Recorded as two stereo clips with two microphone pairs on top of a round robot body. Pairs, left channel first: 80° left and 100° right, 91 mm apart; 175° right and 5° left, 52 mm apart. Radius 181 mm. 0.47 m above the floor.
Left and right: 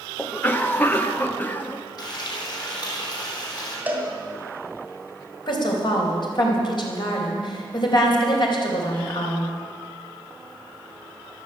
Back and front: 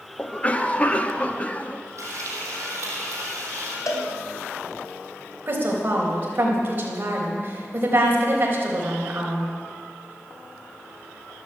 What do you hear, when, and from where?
0.2 s a cough: 135° left, 1.3 m
2.0 s frying: 35° left, 4 m
3.9 s a cowbell: 170° right, 2.5 m
5.5 s a woman speaking: 55° left, 4 m